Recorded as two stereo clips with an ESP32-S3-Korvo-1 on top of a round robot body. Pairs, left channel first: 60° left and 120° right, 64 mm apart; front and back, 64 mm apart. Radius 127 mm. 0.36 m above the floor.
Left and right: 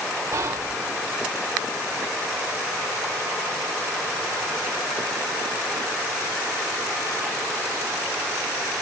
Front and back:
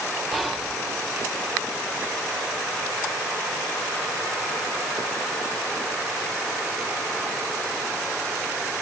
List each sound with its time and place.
0.3 s whispering: 100° right, 1.3 m